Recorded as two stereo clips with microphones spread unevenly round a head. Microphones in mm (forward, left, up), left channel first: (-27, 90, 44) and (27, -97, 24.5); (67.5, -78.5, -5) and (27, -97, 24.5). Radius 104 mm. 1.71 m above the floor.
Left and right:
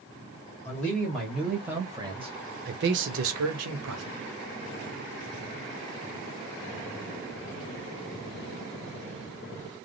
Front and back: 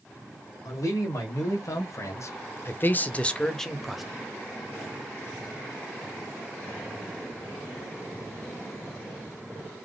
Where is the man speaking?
25° left, 1.5 m; by 4.0 s 80° right, 1.0 m.